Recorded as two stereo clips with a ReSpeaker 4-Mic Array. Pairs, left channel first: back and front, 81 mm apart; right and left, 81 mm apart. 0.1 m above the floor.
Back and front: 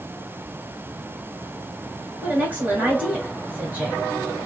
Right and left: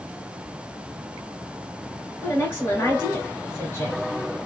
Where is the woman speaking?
55° right, 2.0 m.